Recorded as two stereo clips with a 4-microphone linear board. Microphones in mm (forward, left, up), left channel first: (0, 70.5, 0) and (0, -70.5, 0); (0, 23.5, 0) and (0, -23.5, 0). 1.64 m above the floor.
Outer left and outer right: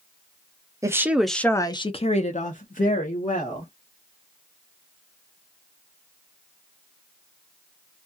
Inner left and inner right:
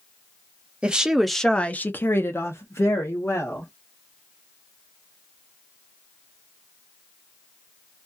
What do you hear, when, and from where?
0.8 s a woman speaking: 20° right (ahead or behind), 0.7 m; by 3.7 s 80° left, 1.4 m